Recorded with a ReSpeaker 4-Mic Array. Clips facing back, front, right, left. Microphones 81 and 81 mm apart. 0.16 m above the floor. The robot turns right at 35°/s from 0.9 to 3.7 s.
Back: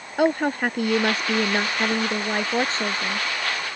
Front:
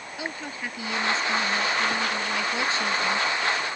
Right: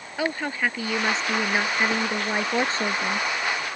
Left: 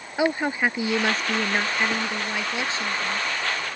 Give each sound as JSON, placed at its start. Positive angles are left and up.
{"t": 0.2, "sound": "a woman speaking", "azimuth_deg": 165}